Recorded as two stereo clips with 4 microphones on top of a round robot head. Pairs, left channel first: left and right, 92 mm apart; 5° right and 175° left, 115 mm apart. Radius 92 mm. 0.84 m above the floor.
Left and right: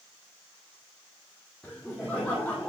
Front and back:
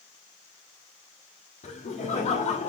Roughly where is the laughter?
Ahead.